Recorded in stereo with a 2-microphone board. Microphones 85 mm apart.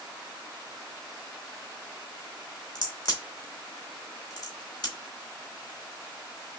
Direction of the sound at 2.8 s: 55° left (ahead or behind).